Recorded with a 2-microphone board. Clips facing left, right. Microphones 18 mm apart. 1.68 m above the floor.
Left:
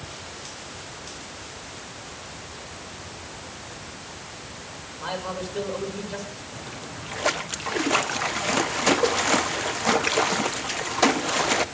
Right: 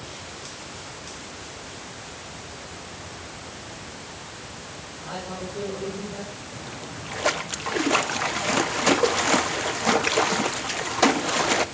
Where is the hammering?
No hammering in this recording.